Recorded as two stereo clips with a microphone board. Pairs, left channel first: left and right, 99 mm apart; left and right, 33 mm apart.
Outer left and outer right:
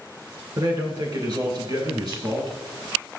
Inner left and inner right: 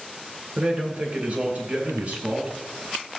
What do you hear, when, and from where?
0.6 s a man speaking: 45° right (ahead or behind), 2 m; by 2.6 s 50° right (ahead or behind), 3.5 m